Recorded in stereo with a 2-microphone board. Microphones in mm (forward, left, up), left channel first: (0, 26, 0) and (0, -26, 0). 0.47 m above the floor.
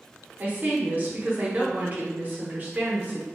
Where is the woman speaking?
35° right (ahead or behind), 0.8 m.